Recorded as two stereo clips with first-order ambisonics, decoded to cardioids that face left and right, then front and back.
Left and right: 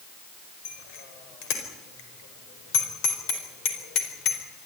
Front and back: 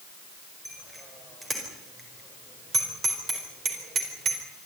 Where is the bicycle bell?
100° left, 5 m; by 4.4 s 125° left, 4 m.